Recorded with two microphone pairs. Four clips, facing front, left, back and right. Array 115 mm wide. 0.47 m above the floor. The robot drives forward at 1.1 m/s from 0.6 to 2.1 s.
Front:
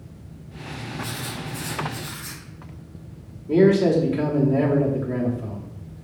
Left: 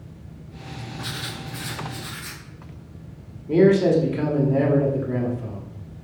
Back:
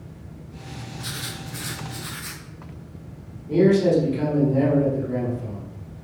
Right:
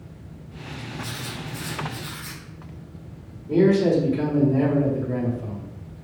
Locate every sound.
1.0 s writing: 110° left, 1.2 m; by 2.4 s 150° left, 2.0 m
3.5 s a man speaking: 40° left, 1.7 m